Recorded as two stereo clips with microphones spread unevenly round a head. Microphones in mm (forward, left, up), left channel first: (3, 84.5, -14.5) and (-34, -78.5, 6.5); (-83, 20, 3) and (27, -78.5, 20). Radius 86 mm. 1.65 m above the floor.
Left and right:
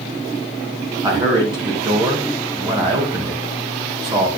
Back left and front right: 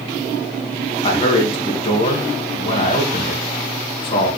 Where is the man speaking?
170° right, 2.5 m.